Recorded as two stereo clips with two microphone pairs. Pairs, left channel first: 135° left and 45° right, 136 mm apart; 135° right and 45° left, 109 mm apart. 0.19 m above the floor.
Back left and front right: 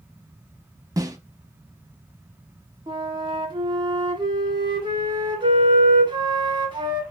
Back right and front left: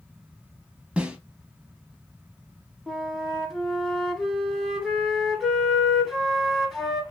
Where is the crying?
No crying in this recording.